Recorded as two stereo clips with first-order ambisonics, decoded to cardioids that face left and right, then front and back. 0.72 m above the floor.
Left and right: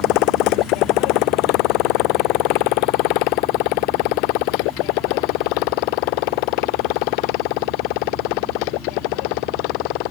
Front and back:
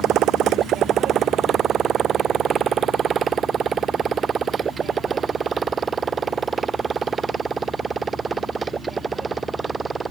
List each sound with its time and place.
0.0 s a motorcycle: 125° left; by 10.1 s 105° left